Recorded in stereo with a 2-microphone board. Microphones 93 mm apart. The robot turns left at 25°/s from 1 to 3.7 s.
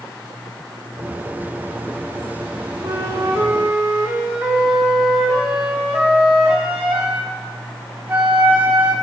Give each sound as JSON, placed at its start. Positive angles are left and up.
{"t": 2.8, "sound": "a flute", "side_deg": -35, "distance_m": 0.6}